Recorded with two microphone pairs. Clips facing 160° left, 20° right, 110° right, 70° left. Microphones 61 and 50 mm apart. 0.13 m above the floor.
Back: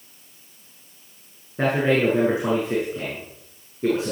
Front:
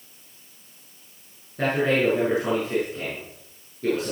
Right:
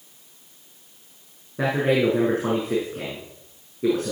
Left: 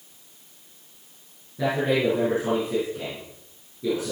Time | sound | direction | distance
1.6 | a man speaking | 135° right | 6 m